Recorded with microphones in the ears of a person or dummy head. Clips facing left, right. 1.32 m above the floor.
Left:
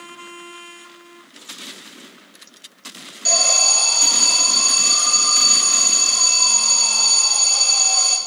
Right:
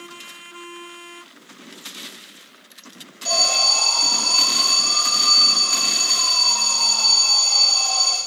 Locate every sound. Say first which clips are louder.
3.2 s an alarm: left 1 dB; 30° left (ahead or behind), 3.5 m